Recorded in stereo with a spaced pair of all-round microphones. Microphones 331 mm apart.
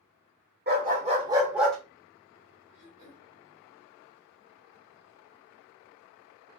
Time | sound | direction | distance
0.7 | a dog barking | 30° right (ahead or behind) | 1.1 m
2.7 | throat clearing | 75° right (ahead or behind) | 1.2 m